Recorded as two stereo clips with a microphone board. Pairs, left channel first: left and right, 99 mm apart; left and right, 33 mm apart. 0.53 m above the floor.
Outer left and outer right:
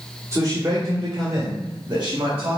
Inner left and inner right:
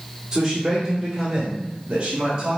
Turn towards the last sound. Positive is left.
turn(degrees=-50)  # may be behind; listen again after turning